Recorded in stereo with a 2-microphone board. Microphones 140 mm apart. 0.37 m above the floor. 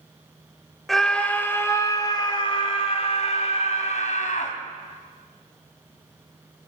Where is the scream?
Centre (ahead or behind), 1.5 m; by 4.5 s 65° left (ahead or behind), 3 m.